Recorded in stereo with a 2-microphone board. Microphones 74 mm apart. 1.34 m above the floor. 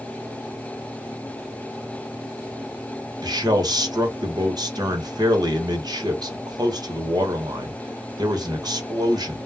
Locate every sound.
3.2 s a man speaking: 55° right (ahead or behind), 1.0 m